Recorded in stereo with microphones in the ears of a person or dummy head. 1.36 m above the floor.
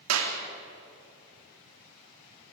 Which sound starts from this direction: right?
A clap, at 0.1 s.